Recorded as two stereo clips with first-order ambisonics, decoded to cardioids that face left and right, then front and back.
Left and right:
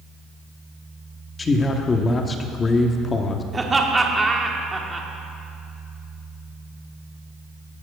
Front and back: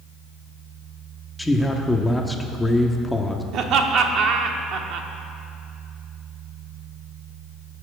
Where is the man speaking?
75° left, 0.7 m.